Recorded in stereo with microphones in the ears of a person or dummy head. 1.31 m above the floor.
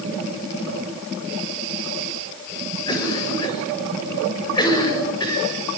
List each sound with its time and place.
2.9 s a cough: 20° left (ahead or behind), 6.5 m